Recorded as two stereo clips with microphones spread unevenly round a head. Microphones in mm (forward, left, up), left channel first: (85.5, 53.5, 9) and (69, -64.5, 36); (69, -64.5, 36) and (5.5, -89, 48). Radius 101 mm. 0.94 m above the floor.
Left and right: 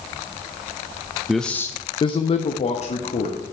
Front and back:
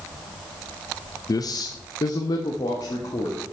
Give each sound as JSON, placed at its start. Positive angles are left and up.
{"t": 1.3, "sound": "a man speaking", "azimuth_deg": -5, "distance_m": 0.6}